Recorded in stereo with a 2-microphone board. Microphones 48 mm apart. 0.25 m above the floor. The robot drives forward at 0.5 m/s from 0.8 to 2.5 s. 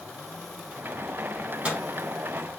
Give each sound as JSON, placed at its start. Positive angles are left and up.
{"t": 1.4, "sound": "a microwave", "side_deg": -30, "distance_m": 1.4}